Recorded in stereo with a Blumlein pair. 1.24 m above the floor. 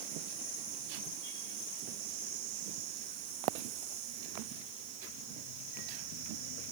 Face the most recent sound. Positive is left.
No sound to turn to.